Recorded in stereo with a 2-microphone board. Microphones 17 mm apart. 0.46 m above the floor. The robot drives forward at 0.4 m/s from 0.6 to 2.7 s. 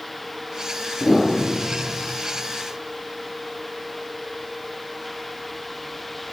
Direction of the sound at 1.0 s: 60° left (ahead or behind).